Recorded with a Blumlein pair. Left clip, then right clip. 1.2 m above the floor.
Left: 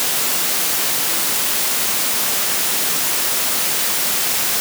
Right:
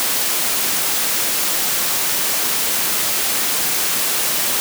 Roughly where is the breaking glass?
I don't hear breaking glass.